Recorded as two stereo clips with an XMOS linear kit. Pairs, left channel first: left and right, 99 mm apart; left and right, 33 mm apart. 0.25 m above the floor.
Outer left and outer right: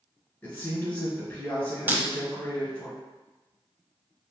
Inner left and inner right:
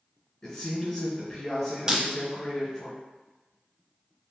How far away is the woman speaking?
About 1.9 m.